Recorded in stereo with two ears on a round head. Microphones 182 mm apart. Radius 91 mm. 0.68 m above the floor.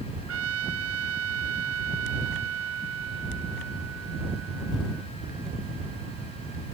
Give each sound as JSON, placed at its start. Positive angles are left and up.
{"t": 0.3, "sound": "a trumpet", "side_deg": -80}